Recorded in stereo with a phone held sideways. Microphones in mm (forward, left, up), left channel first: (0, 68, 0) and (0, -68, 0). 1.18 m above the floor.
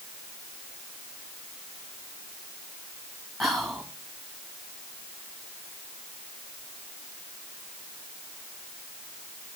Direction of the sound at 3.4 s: Centre (ahead or behind).